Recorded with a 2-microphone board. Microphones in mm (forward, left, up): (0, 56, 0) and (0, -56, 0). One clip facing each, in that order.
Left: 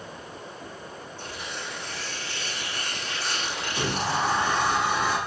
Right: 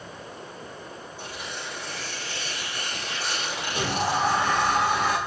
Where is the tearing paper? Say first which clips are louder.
Even; 15° right (ahead or behind), 6 m.